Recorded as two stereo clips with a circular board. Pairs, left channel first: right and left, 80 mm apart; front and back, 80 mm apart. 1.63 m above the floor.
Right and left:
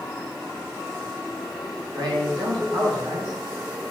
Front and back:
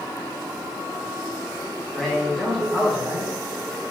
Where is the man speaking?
85° left, 1.3 m.